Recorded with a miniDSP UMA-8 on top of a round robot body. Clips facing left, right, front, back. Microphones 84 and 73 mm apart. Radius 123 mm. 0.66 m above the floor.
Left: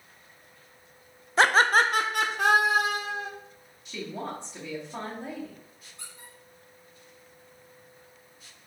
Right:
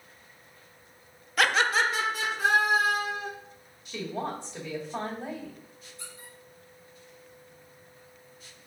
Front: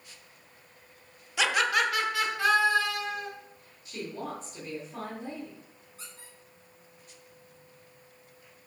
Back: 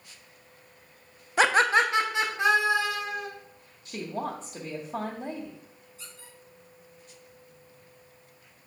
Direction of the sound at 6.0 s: 50° left.